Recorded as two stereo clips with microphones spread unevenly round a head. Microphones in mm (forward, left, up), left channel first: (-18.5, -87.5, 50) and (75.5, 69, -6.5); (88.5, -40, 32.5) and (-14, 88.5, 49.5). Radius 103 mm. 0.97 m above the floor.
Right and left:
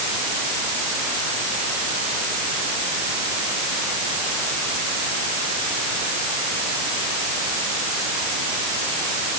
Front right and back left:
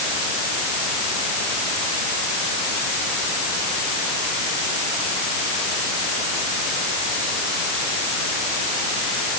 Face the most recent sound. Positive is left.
No sound to turn to.